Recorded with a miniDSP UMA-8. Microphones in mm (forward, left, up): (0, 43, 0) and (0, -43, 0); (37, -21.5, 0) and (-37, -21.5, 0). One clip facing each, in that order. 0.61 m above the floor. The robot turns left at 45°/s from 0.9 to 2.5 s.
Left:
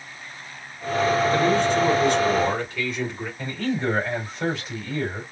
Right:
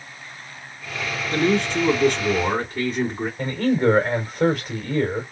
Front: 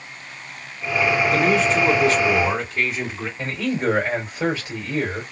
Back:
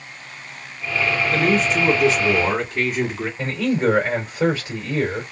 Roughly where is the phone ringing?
I don't hear a phone ringing.